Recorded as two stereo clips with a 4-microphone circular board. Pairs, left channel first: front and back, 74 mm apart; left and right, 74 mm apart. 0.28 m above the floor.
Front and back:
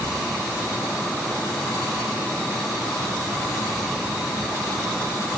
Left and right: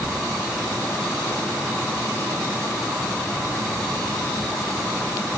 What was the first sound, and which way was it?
Only background noise.